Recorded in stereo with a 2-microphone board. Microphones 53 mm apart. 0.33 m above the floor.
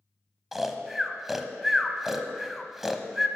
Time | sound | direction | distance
0.5 | snoring | 5° right (ahead or behind) | 0.7 m